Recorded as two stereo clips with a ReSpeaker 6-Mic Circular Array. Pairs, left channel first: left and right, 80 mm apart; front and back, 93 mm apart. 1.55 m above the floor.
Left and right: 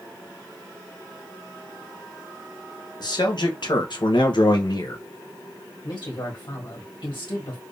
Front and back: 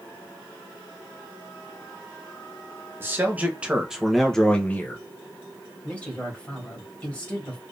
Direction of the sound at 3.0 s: 115° left.